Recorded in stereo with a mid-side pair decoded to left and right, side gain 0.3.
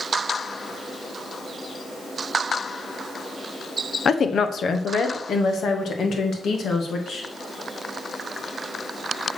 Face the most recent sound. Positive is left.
turn(degrees=75)